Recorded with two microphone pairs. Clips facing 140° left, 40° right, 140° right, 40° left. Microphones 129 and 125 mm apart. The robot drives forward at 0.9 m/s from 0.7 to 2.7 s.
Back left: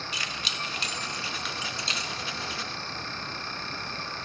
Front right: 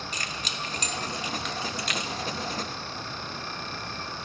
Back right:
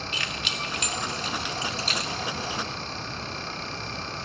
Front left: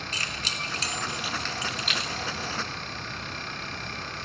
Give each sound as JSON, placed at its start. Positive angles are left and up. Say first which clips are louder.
{"t": 0.1, "sound": "keys jangling", "louder": "front right 1 dB, back right 2 dB", "azimuth_deg": -5, "distance_m": 0.8}